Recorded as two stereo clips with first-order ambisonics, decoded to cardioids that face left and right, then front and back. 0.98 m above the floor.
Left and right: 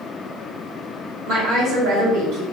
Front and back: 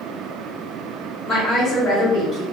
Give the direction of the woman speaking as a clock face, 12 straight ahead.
3 o'clock.